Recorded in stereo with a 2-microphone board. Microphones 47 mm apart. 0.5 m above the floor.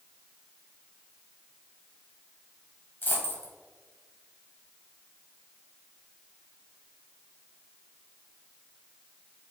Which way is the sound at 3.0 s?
45° left (ahead or behind).